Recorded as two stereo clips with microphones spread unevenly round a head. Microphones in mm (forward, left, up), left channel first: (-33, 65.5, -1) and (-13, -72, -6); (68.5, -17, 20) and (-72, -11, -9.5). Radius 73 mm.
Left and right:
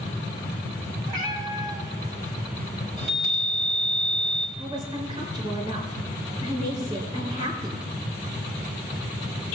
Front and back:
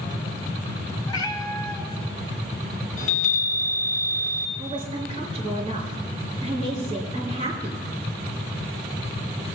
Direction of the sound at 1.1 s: 30° right.